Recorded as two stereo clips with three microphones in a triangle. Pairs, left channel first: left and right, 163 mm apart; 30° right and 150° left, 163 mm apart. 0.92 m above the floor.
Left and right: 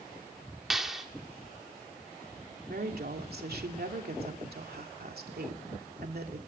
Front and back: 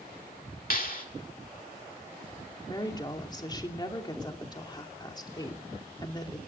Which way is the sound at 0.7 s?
Straight ahead.